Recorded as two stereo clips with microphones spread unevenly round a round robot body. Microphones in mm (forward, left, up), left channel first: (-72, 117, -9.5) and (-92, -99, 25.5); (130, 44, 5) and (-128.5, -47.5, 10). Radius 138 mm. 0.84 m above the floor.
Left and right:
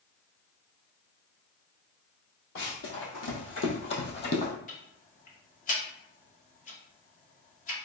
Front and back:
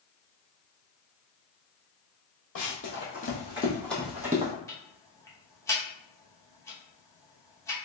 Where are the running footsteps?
55° left, 1.4 m; by 4.5 s 130° left, 1.3 m.